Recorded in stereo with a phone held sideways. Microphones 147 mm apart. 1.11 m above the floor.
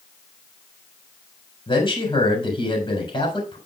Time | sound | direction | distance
1.7 | a man speaking | 35° left (ahead or behind) | 3.5 m